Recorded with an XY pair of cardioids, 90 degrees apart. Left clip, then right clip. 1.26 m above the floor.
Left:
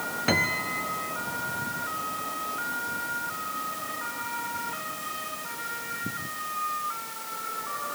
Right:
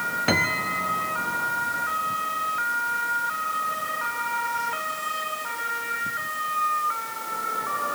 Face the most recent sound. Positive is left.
turn(degrees=-20)